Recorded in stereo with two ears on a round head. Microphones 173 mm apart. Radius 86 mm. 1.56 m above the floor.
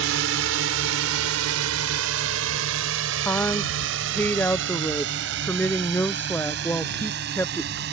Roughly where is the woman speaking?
Centre.